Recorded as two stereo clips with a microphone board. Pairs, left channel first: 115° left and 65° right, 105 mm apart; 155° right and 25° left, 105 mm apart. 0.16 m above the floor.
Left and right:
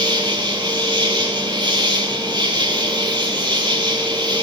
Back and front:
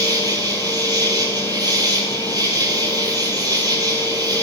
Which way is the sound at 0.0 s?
25° right.